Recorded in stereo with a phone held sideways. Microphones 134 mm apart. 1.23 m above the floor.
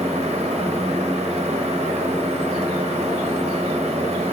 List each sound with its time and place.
0.0 s a fan: 50° right (ahead or behind), 0.8 m